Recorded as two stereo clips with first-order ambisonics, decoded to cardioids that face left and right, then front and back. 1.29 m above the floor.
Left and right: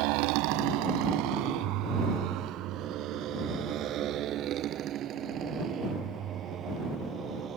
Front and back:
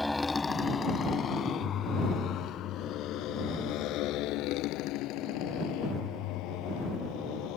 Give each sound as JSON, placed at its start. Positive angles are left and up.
{"t": 0.0, "sound": "a motorcycle", "azimuth_deg": -85}